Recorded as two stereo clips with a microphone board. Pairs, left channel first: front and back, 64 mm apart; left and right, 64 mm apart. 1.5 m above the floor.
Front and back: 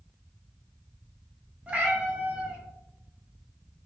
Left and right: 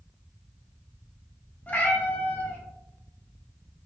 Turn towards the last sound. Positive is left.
turn(degrees=130)